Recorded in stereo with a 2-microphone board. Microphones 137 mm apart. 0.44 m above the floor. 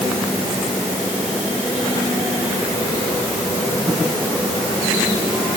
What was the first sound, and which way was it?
Only background noise.